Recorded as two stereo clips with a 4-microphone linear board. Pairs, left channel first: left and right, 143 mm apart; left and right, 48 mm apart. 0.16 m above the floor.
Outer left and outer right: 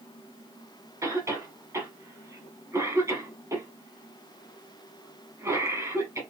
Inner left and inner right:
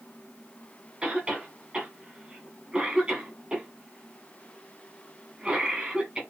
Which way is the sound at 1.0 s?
20° right (ahead or behind).